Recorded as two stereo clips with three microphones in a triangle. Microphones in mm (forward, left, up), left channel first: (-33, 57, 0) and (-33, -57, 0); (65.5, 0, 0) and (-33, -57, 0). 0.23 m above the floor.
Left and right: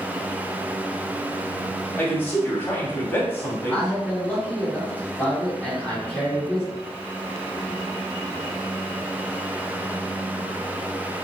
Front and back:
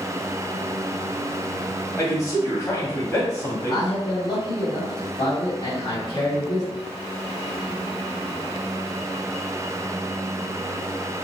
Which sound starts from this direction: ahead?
A man speaking, at 3.7 s.